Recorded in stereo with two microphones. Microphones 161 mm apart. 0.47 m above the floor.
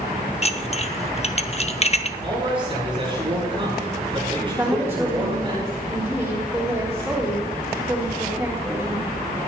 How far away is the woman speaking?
About 3.5 m.